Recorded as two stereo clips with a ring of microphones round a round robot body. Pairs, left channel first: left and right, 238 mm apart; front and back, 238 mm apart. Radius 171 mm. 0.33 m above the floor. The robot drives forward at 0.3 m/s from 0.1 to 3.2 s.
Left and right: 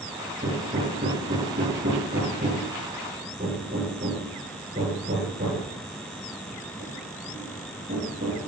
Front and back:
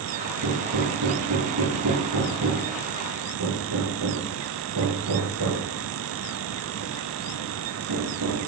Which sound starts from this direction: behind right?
Hammering, at 0.4 s.